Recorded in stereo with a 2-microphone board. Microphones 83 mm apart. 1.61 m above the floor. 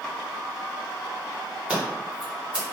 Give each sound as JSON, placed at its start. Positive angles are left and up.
{"t": 1.7, "sound": "scissors", "side_deg": -10, "distance_m": 1.0}